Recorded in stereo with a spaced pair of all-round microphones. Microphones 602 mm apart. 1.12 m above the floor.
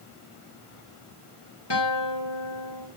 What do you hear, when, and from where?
1.7 s a guitar: 45° left (ahead or behind), 3 m